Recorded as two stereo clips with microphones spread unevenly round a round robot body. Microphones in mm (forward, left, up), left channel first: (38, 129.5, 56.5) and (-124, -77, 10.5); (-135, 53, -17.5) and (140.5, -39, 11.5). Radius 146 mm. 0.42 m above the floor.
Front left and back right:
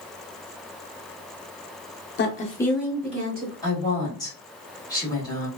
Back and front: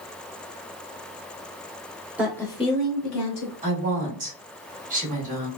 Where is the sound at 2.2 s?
75° left, 0.8 m; by 3.5 s 165° right, 1.3 m.